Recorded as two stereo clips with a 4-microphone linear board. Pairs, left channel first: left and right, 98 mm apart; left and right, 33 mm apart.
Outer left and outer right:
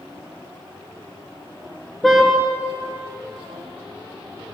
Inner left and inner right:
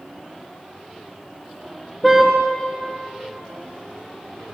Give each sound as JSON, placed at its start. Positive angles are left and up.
{"t": 2.0, "sound": "a car horn", "side_deg": 0, "distance_m": 7.0}